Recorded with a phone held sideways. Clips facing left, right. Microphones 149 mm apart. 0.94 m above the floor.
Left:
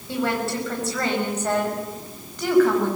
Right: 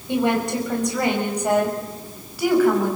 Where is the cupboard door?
I don't hear a cupboard door.